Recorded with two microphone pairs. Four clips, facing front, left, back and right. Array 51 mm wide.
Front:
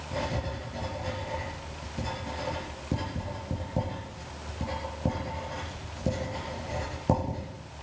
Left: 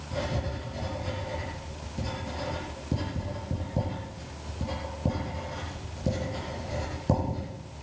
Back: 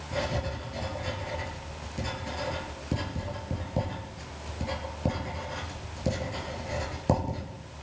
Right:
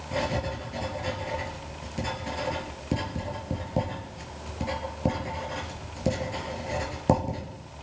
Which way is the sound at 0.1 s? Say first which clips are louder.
Right 4 dB, back 1 dB; 105° right.